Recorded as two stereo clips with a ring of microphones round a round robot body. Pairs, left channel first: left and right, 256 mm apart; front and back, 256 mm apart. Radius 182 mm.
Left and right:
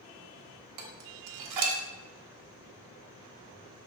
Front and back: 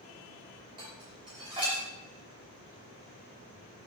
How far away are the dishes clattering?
About 0.9 m.